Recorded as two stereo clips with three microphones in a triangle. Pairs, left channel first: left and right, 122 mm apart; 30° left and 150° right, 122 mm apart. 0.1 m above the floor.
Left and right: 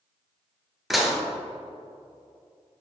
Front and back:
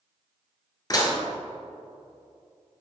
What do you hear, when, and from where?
0.9 s dishes clattering: straight ahead, 1.2 m